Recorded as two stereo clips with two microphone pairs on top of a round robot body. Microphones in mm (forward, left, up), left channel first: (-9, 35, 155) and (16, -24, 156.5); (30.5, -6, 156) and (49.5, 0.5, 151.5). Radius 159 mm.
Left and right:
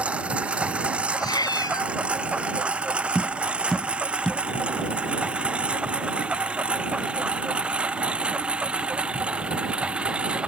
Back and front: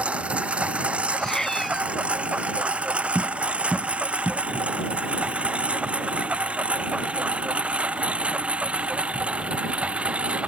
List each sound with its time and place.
0.0 s a lawn mower: 5° left; by 10.5 s 10° left
1.1 s a cat meowing: 135° left
3.1 s tapping: 30° left